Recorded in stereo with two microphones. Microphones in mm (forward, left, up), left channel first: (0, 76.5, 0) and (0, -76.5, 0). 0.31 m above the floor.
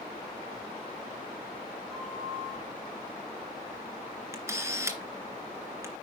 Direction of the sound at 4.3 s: 20° right (ahead or behind).